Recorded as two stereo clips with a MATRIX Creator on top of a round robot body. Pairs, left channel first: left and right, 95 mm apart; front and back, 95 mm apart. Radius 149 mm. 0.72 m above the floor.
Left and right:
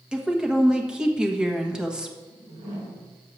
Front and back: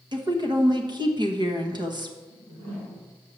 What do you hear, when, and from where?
0.1 s a woman speaking: 170° right, 1.4 m
2.3 s a whoosh: 150° right, 4 m